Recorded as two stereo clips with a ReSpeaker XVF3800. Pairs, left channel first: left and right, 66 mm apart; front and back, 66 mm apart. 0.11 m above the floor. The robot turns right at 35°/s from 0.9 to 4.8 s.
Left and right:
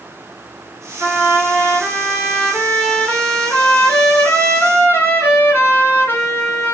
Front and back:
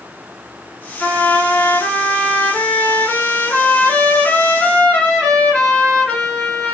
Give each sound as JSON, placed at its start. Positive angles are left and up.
{"t": 1.0, "sound": "a trumpet", "azimuth_deg": -65, "distance_m": 1.7}